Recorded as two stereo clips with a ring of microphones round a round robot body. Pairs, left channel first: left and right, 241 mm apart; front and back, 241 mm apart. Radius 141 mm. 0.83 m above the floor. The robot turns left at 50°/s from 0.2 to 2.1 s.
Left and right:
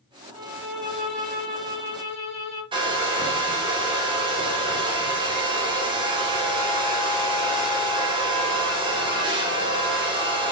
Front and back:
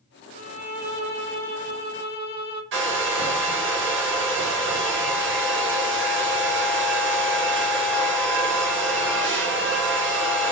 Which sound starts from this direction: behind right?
A hair dryer, at 2.7 s.